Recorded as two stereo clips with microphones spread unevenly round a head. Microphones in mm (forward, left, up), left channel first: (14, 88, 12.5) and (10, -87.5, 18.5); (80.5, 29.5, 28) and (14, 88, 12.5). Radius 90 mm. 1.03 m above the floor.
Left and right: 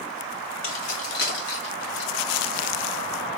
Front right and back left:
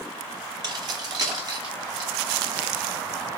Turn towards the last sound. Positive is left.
turn(degrees=100)